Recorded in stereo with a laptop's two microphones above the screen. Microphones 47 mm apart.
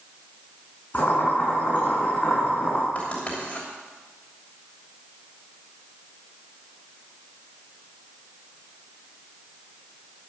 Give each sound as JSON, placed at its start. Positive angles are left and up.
{"t": 0.9, "sound": "boiling", "side_deg": 35, "distance_m": 6.0}
{"t": 3.0, "sound": "writing", "side_deg": 35, "distance_m": 3.0}